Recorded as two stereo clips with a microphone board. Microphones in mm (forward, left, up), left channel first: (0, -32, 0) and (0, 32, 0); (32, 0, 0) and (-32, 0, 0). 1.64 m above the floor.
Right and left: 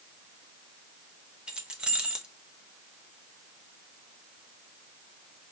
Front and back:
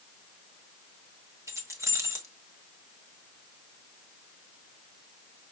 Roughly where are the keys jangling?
Behind.